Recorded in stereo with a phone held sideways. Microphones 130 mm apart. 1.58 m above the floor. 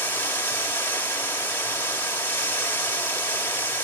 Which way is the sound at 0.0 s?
15° left (ahead or behind).